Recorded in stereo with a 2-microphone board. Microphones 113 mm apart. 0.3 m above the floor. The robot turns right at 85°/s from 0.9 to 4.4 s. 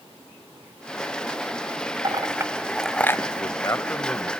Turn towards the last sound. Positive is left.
turn(degrees=-175)